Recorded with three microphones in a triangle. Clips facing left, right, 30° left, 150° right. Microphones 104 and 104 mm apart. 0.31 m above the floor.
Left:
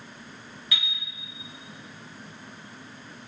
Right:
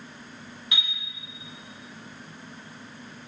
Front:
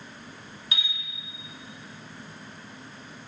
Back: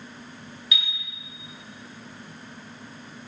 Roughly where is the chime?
Ahead right.